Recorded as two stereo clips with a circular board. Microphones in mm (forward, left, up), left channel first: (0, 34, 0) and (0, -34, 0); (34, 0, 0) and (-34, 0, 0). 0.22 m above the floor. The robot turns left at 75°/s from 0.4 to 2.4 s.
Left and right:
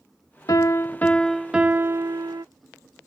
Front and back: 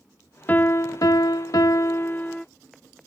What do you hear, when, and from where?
0.5 s a piano: 65° left; by 2.5 s 80° right